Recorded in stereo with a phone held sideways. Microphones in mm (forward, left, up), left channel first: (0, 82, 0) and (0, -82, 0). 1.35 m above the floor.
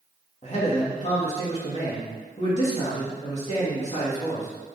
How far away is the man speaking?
About 2.5 m.